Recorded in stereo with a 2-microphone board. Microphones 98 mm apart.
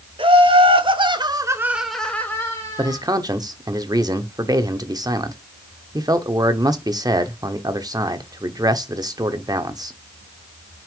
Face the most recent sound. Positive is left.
turn(degrees=-40)  # may be behind; listen again after turning